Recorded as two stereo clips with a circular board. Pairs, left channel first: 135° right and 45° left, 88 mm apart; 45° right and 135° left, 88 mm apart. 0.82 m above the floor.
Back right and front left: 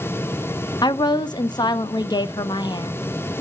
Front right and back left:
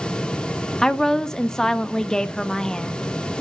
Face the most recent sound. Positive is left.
turn(degrees=-125)